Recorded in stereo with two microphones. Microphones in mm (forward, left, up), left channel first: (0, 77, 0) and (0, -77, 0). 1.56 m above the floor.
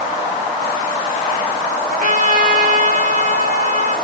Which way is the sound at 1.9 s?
60° right (ahead or behind).